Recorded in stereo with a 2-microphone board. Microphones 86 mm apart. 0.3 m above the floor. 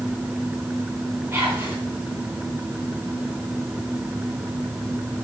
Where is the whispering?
25° right (ahead or behind), 3.5 m.